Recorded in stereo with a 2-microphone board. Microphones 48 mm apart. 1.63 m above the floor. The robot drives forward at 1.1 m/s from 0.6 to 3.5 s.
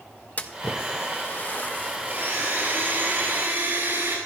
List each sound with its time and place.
0.4 s a splash: 35° left (ahead or behind), 1.1 m; by 2.6 s 20° left (ahead or behind), 1.8 m
2.1 s a blender: 55° right (ahead or behind), 6 m; by 4.2 s 45° right (ahead or behind), 7 m